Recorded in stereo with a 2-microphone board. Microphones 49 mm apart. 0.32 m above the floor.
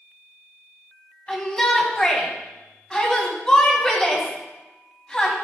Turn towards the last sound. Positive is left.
turn(degrees=20)  # may be behind; listen again after turning